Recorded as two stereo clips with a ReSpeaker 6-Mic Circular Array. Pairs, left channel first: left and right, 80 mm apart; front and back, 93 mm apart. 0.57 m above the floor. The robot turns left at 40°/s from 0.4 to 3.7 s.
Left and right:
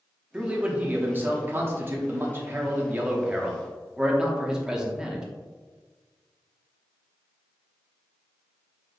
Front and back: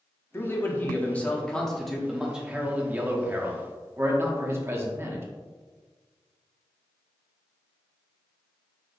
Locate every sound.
0.3 s a man speaking: 30° right, 0.8 m; by 5.2 s 160° right, 0.8 m